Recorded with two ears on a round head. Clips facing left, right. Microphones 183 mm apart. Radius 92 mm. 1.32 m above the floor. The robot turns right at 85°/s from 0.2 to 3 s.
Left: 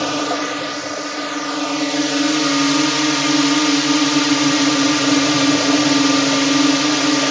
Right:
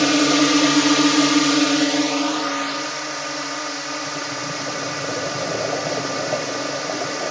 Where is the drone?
150° right; by 7.3 s 90° left.